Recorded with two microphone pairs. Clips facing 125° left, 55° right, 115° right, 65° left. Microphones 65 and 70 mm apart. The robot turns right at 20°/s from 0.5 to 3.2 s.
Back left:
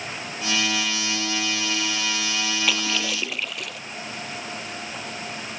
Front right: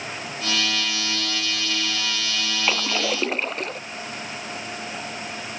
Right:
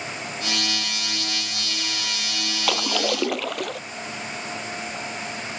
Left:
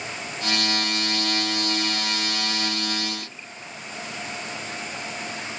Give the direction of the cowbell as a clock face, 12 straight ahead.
No cowbell in this recording.